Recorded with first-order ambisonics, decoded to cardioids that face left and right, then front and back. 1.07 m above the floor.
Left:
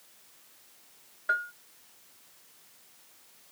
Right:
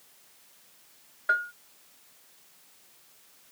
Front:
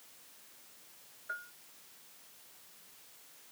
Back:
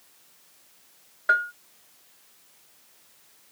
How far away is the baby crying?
I don't hear a baby crying.